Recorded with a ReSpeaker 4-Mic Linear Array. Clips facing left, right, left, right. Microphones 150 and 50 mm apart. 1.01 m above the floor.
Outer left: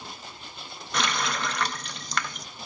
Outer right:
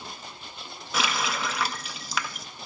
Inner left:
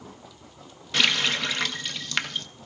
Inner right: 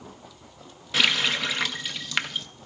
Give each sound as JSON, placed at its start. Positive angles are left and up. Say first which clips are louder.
{"t": 0.9, "sound": "a running tap", "louder": "even, even", "side_deg": -5, "distance_m": 0.5}